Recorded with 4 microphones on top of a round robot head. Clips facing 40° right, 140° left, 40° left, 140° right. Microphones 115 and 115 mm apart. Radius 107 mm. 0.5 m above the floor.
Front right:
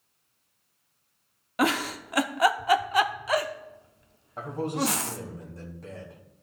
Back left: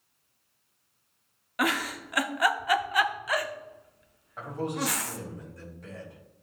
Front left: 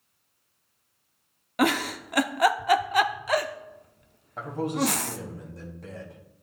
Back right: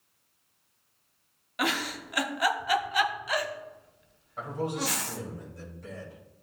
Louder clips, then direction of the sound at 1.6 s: Front right 3 dB, front left 6 dB; 15° left.